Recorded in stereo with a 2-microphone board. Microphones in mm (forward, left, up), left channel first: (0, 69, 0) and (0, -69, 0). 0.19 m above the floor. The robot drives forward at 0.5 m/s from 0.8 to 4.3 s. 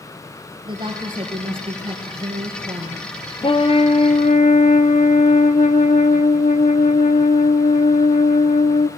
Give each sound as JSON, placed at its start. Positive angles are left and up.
{"t": 0.7, "sound": "a woman speaking", "side_deg": -35, "distance_m": 3.5}
{"t": 3.4, "sound": "a trumpet", "side_deg": 40, "distance_m": 0.8}